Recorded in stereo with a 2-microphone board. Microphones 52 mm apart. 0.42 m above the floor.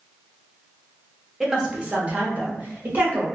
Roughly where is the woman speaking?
Centre.